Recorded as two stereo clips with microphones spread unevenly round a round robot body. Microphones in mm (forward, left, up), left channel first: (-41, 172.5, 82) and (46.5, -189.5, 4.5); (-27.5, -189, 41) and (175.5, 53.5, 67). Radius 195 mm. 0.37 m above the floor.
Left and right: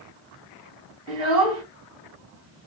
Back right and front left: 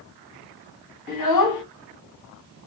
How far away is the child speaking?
About 1.8 m.